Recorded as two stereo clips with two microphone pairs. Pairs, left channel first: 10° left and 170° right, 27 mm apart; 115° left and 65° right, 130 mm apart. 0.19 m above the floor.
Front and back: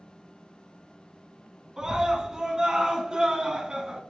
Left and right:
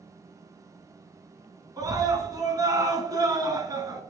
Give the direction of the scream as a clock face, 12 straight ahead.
4 o'clock.